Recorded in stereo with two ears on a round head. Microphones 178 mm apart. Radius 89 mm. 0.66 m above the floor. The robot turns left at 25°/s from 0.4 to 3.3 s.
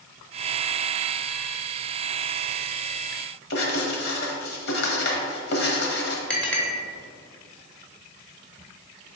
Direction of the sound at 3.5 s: 55° left (ahead or behind).